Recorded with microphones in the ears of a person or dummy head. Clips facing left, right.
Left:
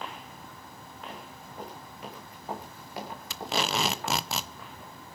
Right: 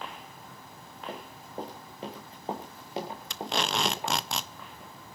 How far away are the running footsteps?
About 8.5 m.